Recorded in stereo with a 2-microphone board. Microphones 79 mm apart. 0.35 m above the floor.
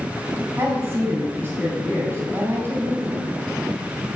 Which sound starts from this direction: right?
A woman speaking, at 0.6 s.